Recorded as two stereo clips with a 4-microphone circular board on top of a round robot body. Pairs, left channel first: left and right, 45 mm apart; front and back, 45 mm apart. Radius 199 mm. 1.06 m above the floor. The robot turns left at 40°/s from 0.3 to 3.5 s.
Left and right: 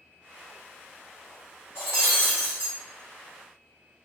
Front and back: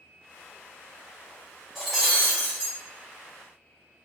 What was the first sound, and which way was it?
Breaking glass, 90° left.